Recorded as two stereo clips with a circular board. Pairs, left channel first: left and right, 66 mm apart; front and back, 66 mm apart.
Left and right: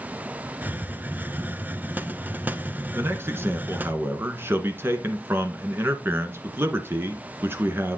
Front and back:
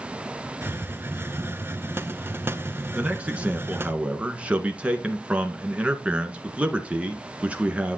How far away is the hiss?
About 0.7 m.